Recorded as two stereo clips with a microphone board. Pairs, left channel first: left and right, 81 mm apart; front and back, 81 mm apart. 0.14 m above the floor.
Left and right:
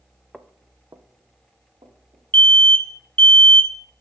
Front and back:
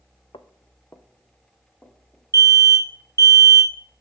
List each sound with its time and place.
0.3 s footsteps: straight ahead, 0.7 m; by 2.2 s 85° right, 2.5 m
2.3 s an alarm: 155° left, 1.5 m